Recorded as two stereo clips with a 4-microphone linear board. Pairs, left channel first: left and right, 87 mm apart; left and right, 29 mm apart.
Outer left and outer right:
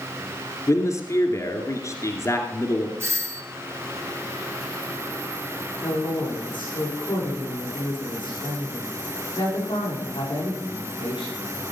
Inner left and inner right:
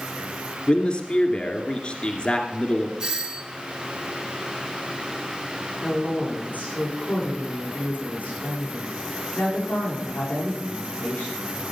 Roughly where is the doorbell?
Right.